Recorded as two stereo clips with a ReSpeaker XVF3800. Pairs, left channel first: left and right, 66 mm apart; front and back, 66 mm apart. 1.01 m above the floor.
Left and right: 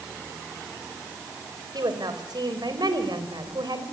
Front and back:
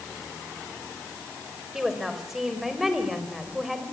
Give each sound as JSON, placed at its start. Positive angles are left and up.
{"t": 1.7, "sound": "a woman speaking", "azimuth_deg": -95, "distance_m": 4.0}